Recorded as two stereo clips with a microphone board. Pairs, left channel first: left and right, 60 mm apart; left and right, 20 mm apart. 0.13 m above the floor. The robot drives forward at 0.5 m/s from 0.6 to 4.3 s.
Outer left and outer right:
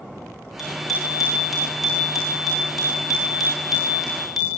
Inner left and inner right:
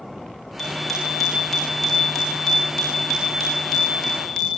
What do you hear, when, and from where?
0.6 s a bicycle bell: centre (ahead or behind), 8.5 m